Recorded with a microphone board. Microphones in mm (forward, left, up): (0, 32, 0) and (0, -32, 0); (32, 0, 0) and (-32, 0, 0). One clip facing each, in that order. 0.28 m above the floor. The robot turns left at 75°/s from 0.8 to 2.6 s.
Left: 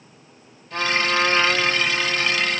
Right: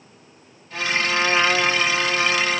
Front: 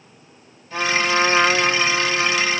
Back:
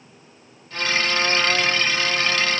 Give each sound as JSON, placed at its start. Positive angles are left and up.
{"t": 0.7, "sound": "a trumpet", "azimuth_deg": 30, "distance_m": 1.2}